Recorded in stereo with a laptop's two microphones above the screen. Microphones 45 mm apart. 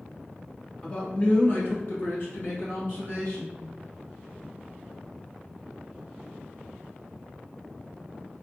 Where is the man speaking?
25° left (ahead or behind), 0.9 m; by 3.6 s 60° left (ahead or behind), 1.7 m.